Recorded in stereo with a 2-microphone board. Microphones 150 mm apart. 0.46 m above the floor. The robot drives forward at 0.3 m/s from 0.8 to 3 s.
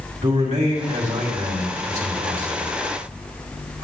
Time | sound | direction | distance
0.2 | a man speaking | 60° right (ahead or behind) | 2.5 m